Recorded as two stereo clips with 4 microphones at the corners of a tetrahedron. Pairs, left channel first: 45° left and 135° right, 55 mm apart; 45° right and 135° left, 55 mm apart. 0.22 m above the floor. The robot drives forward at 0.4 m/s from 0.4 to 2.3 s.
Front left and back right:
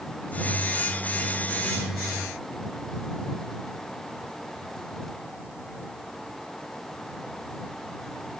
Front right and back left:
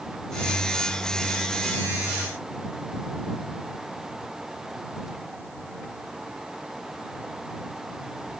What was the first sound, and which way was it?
Only background noise.